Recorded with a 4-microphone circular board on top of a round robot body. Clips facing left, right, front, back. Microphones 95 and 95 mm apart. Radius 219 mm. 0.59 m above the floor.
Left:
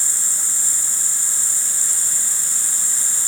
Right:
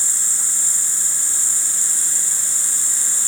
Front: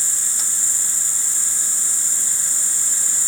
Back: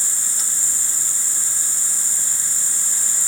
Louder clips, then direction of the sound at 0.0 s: Even, even; 135° left.